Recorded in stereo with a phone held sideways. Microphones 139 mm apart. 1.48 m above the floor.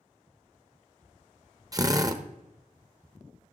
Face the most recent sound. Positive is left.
turn(degrees=-25)  # may be behind; listen again after turning